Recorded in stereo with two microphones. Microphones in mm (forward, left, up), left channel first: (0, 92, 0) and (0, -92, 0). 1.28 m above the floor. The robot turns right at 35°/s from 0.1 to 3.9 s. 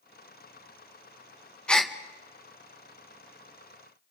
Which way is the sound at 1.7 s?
5° left (ahead or behind).